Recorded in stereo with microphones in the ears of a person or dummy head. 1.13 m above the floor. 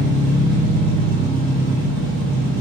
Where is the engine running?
75° left (ahead or behind), 1.0 m.